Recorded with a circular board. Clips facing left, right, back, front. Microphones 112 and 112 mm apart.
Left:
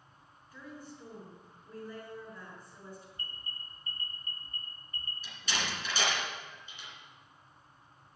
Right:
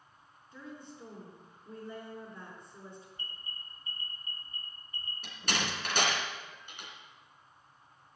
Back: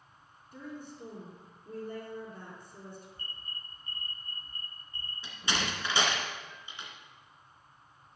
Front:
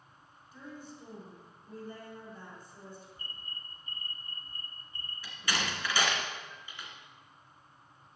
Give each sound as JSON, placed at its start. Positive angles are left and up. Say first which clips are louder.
{"t": 0.5, "sound": "a woman speaking", "louder": "right 1 dB, back 3 dB", "azimuth_deg": -155, "distance_m": 4.5}
{"t": 3.2, "sound": "an alarm", "louder": "left 1 dB, back 1 dB", "azimuth_deg": 90, "distance_m": 2.0}
{"t": 5.2, "sound": "a door slam", "louder": "right 2 dB, back 1 dB", "azimuth_deg": -115, "distance_m": 2.5}